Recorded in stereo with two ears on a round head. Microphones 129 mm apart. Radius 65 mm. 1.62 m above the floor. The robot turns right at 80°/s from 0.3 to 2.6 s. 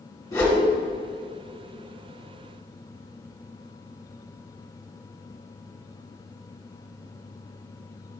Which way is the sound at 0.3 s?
25° left (ahead or behind).